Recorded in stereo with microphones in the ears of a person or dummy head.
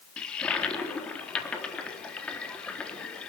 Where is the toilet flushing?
10° left (ahead or behind), 4 m.